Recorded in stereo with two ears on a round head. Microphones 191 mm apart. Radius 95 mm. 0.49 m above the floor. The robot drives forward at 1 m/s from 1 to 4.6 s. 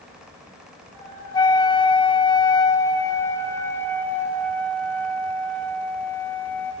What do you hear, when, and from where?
1.3 s a flute: 20° left (ahead or behind), 1.3 m; by 6.7 s 10° left (ahead or behind), 3 m